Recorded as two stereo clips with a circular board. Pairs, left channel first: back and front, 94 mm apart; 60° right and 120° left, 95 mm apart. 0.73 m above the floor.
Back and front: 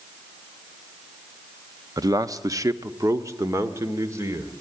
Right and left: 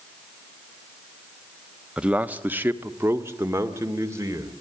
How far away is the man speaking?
About 0.8 m.